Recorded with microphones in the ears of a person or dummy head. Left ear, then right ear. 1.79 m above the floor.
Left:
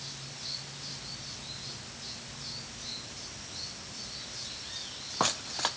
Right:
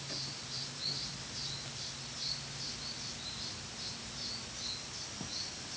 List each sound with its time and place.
Only background noise.